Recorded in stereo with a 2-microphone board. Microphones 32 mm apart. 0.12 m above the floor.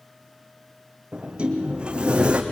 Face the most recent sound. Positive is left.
turn(degrees=-30)  # may be behind; listen again after turning